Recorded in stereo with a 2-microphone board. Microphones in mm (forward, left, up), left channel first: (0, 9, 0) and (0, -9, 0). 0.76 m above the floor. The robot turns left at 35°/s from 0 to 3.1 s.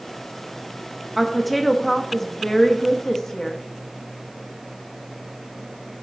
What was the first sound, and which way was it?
A woman speaking, 175° right.